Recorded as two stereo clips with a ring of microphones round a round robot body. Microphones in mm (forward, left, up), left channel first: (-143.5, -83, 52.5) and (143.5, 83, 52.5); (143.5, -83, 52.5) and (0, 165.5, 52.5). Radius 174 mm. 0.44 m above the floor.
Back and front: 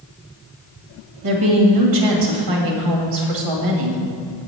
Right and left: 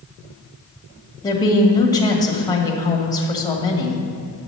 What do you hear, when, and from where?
1.2 s a woman speaking: 15° left, 2 m